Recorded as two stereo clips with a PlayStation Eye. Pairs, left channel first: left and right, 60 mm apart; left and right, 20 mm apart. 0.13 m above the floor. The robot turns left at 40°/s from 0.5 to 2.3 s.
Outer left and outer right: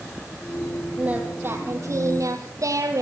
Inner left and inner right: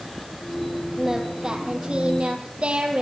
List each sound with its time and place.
1.0 s singing: 20° right, 4 m; by 3.0 s 75° right, 4 m